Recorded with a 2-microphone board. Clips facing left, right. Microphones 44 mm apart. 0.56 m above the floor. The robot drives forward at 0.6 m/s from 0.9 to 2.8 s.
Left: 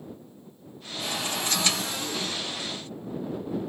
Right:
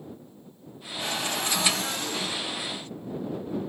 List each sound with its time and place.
1.0 s a cupboard door: 45° right (ahead or behind), 2 m; by 2.4 s 65° right (ahead or behind), 1.7 m